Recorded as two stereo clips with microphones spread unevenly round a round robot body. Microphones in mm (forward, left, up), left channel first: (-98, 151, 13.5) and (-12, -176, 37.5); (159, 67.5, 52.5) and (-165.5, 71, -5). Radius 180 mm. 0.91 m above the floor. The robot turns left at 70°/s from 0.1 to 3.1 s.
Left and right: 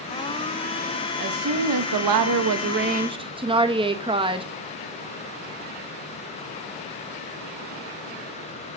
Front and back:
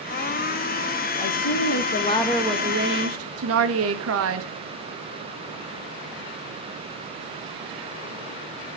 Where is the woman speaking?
15° right, 1.5 m; by 4.5 s 150° right, 1.5 m.